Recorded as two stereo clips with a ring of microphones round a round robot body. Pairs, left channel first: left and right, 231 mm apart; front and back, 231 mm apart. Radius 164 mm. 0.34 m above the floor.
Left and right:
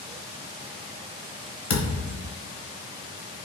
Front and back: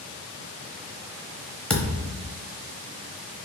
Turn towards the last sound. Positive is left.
turn(degrees=85)